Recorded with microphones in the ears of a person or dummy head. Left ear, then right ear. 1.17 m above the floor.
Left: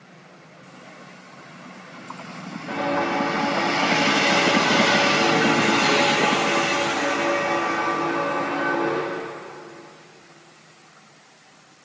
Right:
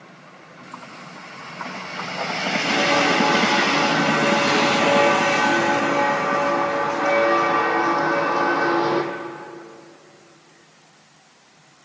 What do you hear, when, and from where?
2.7 s footsteps: 80° right, 8 m; by 9.1 s 65° right (ahead or behind), 2.5 m